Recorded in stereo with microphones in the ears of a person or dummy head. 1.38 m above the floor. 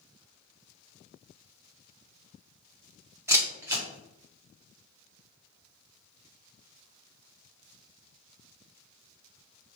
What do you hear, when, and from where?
3.3 s a camera shutter: 10° right (ahead or behind), 0.7 m